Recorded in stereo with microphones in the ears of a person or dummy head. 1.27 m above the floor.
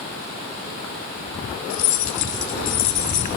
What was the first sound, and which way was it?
Keys jangling, 85° left.